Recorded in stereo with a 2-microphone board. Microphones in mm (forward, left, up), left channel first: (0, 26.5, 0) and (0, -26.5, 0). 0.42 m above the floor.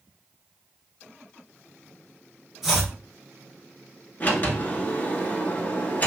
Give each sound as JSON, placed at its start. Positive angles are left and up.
{"t": 2.6, "sound": "chopping", "side_deg": -10, "distance_m": 1.3}
{"t": 4.2, "sound": "a sliding door", "side_deg": 35, "distance_m": 0.9}